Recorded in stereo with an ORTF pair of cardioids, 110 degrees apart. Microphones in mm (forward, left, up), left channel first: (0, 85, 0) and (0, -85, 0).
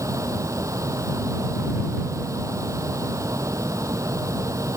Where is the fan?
20° right.